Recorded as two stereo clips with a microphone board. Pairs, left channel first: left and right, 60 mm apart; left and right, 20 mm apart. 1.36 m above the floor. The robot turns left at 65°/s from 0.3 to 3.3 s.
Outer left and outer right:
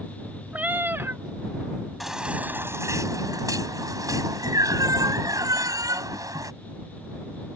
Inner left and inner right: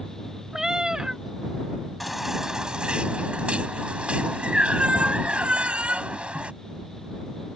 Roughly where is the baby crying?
Ahead.